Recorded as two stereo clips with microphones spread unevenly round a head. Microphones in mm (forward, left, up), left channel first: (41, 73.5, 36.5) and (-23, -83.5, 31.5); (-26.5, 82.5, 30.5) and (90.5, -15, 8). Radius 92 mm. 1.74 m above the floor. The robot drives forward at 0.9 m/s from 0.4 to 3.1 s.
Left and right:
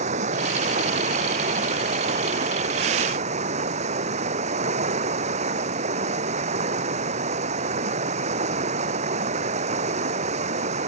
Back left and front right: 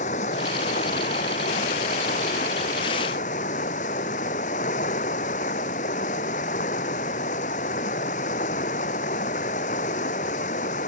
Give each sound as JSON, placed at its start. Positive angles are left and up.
{"t": 0.0, "sound": "running water", "azimuth_deg": -165}